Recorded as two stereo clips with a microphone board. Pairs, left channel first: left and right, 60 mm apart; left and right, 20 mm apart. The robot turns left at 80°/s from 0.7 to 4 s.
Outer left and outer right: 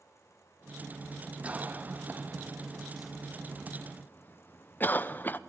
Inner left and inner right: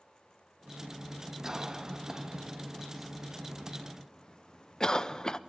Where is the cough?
25° right (ahead or behind), 0.5 m; by 5.4 s 30° left (ahead or behind), 0.5 m.